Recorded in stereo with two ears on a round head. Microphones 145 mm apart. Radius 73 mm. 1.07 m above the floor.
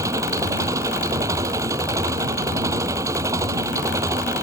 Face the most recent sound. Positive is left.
turn(degrees=-20)  # may be behind; listen again after turning